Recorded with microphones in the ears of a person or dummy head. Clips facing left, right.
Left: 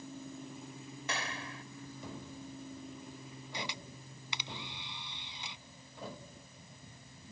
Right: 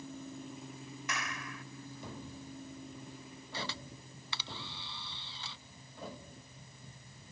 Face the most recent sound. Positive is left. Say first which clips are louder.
# right 1 dB
turn(degrees=15)  # may be behind; listen again after turning